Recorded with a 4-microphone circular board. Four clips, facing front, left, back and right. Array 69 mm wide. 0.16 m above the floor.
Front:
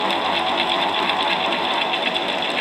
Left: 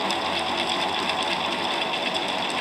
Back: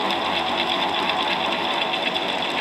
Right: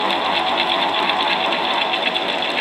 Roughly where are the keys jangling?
No keys jangling in this recording.